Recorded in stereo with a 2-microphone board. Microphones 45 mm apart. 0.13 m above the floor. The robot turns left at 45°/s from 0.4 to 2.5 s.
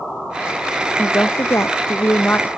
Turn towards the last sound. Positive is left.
turn(degrees=45)